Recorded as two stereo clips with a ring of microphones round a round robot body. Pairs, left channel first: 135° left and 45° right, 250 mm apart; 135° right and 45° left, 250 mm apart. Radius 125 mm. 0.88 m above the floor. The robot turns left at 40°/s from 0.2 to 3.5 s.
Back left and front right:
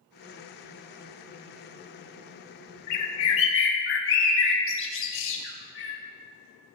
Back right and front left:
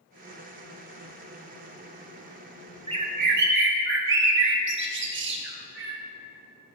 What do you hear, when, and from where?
2.9 s a bird: 115° left, 1.2 m; by 6.0 s 90° left, 1.2 m